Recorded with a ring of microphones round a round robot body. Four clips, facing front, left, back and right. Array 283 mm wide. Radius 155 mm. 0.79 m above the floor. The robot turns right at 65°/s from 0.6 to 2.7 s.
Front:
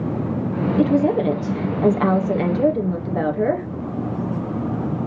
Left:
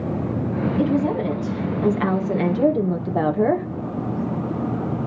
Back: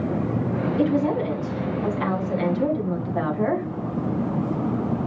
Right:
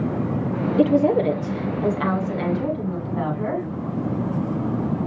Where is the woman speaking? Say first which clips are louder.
Right 5 dB, front 5 dB; 60° right, 2.5 m; by 3.7 s 65° left, 2.5 m.